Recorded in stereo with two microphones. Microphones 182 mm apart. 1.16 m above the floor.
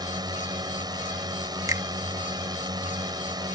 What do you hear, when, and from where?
0.0 s a drone: 20° right (ahead or behind)
1.7 s a finger snap: 15° right (ahead or behind)